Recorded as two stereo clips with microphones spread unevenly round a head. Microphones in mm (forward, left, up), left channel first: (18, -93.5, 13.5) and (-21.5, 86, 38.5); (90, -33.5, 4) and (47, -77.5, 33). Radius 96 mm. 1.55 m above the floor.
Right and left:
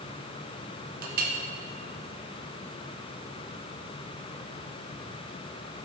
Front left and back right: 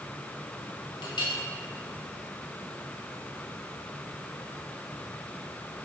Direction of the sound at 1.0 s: 85° left.